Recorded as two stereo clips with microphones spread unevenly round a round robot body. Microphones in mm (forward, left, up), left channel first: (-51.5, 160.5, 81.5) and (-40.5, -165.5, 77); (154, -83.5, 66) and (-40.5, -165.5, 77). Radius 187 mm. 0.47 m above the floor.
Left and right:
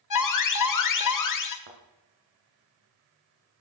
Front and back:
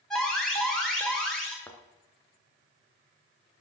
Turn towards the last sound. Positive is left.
turn(degrees=-60)